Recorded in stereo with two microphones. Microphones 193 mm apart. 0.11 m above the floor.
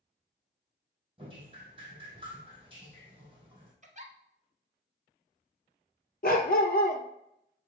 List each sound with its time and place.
1.2 s dripping: 30° right (ahead or behind), 2.5 m
3.8 s a giggle: 40° right (ahead or behind), 1.1 m
6.2 s a dog barking: 50° left (ahead or behind), 1.1 m